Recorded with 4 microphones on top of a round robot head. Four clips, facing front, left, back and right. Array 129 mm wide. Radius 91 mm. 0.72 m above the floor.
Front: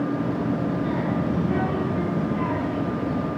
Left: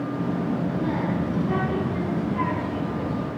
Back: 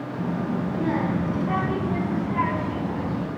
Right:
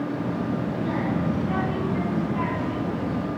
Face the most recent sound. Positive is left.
turn(degrees=165)